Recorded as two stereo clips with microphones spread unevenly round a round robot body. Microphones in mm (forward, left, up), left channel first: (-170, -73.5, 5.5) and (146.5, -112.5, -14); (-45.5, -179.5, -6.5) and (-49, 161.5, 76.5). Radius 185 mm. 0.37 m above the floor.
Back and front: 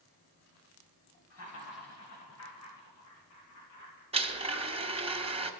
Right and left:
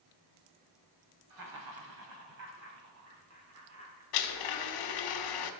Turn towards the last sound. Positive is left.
turn(degrees=-80)